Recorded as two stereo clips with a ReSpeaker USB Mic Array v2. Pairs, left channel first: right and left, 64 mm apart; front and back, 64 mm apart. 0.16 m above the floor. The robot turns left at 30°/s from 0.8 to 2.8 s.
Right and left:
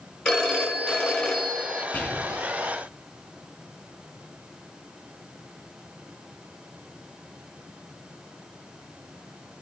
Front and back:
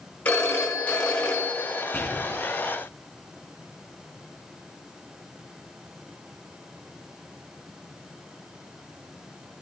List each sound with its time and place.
0.2 s a phone ringing: 25° right, 1.1 m; by 1.8 s 55° right, 1.1 m
1.9 s whispering: 50° right, 1.2 m; by 2.4 s 65° right, 1.2 m